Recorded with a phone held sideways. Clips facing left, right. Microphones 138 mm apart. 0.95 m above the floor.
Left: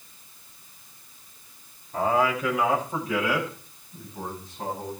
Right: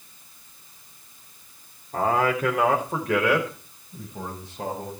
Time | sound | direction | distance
1.9 | a man speaking | 50° right (ahead or behind) | 3 m